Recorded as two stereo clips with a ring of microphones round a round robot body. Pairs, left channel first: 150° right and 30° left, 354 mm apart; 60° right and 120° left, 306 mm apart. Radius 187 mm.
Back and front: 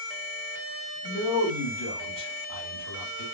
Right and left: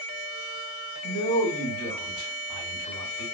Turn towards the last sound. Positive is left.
turn(degrees=-120)